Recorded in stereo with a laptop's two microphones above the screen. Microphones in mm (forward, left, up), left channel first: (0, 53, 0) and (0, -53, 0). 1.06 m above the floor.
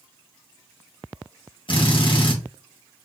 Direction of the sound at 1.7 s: 60° left (ahead or behind).